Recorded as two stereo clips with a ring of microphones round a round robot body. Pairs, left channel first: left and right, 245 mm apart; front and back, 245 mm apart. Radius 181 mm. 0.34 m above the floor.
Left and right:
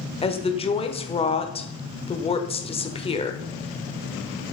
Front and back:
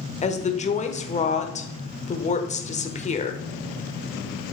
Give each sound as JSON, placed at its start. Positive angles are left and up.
{"t": 0.2, "sound": "a woman speaking", "azimuth_deg": 40, "distance_m": 1.1}